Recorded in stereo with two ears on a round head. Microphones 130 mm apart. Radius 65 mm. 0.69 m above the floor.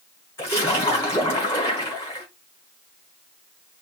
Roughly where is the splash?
Centre.